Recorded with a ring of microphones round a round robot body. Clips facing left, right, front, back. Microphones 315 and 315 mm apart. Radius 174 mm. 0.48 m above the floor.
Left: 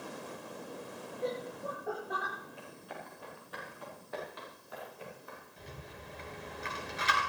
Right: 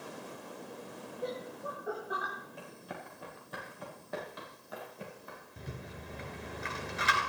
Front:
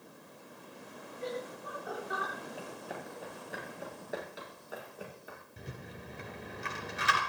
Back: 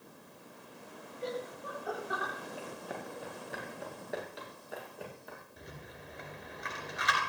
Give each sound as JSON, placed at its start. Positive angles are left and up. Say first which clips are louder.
{"t": 1.2, "sound": "laughter", "louder": "left 2 dB, back 1 dB", "azimuth_deg": -175, "distance_m": 9.0}
{"t": 2.6, "sound": "running footsteps", "louder": "right 1 dB, back 1 dB", "azimuth_deg": -90, "distance_m": 8.0}
{"t": 5.6, "sound": "a rattle", "louder": "right 6 dB, front 3 dB", "azimuth_deg": -55, "distance_m": 3.5}